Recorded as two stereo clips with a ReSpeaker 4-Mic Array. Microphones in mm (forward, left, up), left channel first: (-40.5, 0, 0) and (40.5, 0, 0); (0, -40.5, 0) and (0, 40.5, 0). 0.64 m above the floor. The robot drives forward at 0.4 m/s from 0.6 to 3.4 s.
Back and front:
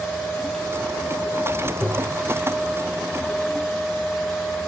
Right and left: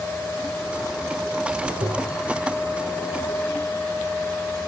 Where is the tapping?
90° left, 1.7 m; by 2.2 s 95° left, 1.7 m.